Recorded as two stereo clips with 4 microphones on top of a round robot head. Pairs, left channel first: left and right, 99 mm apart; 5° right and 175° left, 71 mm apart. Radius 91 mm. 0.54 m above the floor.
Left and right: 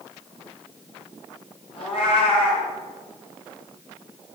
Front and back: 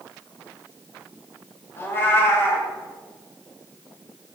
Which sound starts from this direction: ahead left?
A cat meowing, at 1.8 s.